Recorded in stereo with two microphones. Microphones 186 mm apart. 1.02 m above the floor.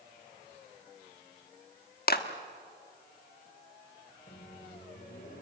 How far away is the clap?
About 1.4 m.